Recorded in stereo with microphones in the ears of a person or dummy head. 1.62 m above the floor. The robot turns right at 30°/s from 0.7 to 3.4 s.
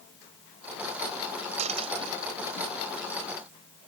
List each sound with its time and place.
1.6 s a dropped coin: 45° right (ahead or behind); by 2.6 s 15° right (ahead or behind)